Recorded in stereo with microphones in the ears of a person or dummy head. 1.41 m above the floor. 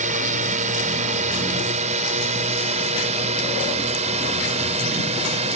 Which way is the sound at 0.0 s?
45° right (ahead or behind).